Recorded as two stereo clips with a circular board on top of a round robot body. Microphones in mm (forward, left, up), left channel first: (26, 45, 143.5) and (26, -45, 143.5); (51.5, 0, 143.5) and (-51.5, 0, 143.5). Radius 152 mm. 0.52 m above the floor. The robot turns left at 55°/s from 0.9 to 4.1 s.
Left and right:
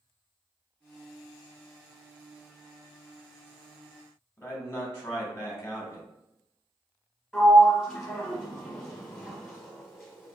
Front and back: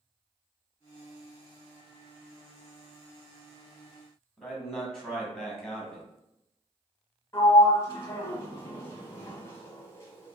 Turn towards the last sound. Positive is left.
turn(degrees=20)